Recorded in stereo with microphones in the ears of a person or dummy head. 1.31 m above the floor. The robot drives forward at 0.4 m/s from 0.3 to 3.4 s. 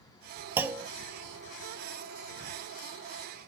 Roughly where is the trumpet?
No trumpet in this recording.